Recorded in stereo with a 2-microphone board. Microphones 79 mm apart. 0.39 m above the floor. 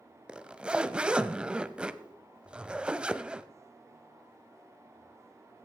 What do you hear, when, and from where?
0.3 s a zipper: 10° right (ahead or behind), 0.7 m